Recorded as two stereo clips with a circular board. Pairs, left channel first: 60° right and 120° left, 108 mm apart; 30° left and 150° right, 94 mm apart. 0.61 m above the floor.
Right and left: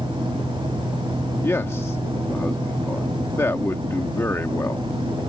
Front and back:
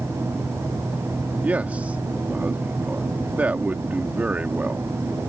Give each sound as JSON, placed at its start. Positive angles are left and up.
{"t": 1.4, "sound": "a man speaking", "azimuth_deg": -95}